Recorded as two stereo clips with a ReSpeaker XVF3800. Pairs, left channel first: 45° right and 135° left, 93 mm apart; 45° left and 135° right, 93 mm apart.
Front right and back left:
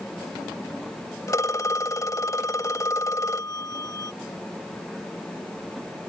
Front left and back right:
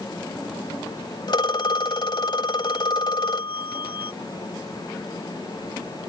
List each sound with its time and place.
1.3 s a phone ringing: 10° left